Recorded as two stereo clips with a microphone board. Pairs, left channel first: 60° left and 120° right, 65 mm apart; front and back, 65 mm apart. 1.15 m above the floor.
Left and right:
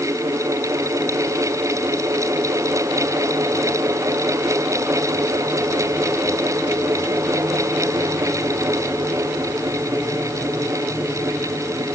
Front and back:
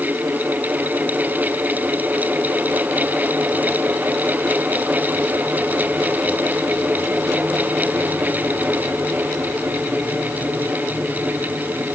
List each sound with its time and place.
Only background noise.